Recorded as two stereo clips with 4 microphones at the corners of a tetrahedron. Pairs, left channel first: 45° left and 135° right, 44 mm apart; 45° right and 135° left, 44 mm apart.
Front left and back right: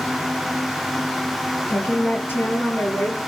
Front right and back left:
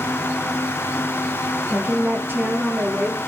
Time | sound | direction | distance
1.7 | a woman speaking | 95° left | 5 m